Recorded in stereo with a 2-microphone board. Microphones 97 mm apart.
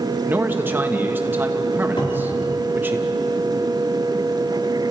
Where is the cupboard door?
55° left (ahead or behind), 3.5 m.